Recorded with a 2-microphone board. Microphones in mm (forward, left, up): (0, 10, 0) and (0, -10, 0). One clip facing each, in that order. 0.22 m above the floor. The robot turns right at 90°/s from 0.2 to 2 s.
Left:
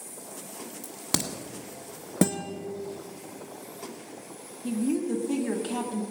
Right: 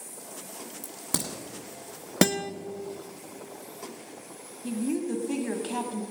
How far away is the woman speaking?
About 1.4 m.